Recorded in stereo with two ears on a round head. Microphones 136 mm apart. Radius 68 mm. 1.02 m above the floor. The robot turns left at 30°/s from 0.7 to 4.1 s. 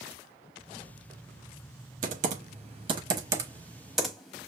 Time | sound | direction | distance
2.0 | typing on a keyboard | 60° right (ahead or behind) | 0.9 m